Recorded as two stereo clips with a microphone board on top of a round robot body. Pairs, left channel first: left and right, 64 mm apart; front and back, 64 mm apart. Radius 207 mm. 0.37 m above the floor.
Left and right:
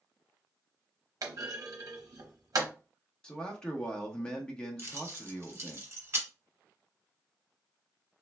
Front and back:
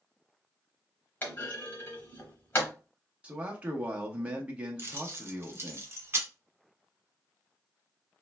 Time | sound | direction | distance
1.2 | a clunk | 60° right | 0.9 m
3.2 | a man speaking | 145° left | 0.9 m
4.8 | keys jangling | 130° right | 1.3 m